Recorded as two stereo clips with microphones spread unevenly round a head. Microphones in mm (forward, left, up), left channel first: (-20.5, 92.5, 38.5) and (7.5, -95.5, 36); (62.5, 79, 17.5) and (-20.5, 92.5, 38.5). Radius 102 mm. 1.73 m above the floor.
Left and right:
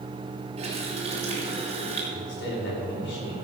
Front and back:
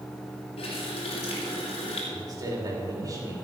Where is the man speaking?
125° left, 4.5 m.